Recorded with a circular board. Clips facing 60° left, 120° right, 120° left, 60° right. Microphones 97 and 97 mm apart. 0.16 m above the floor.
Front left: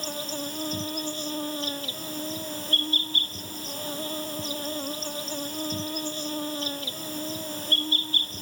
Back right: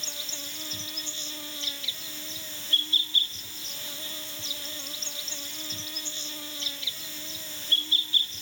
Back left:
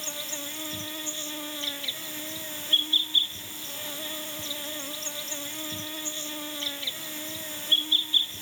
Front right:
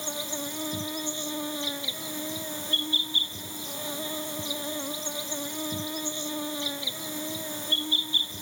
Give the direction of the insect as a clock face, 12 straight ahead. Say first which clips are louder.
Front left 11 dB, front right 5 dB; 12 o'clock.